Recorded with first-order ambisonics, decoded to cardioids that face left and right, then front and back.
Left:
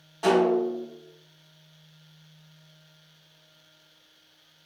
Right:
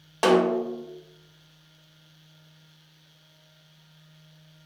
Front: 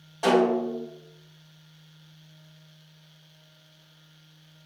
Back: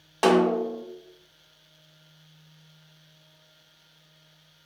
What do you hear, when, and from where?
0.2 s a snare drum: 135° right, 0.7 m